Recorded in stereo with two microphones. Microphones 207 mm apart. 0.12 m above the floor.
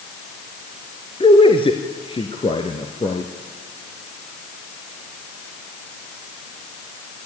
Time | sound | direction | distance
1.2 | a man speaking | 25° left (ahead or behind) | 1.5 m